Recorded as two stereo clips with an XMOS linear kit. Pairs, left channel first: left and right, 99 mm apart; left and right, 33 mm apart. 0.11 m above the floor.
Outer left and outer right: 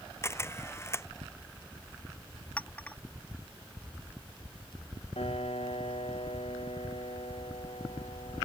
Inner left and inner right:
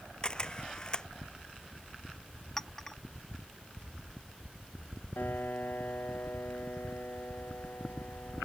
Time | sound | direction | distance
0.2 | a camera shutter | 25° left (ahead or behind) | ?
2.6 | a clink | 15° left (ahead or behind) | ?
5.2 | a piano | 80° left | ?